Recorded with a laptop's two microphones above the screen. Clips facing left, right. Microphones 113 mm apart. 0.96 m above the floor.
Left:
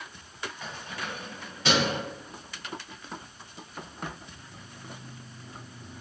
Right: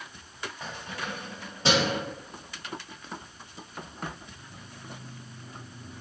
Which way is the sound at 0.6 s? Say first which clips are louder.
Right 3 dB; 30° right (ahead or behind).